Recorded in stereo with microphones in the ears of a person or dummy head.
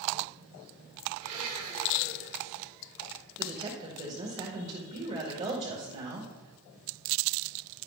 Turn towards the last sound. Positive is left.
turn(degrees=-35)  # may be behind; listen again after turning